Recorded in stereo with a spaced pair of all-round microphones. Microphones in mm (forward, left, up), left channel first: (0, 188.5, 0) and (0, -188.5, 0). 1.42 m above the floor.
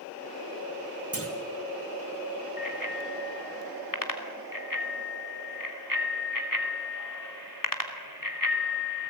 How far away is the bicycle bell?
About 3 m.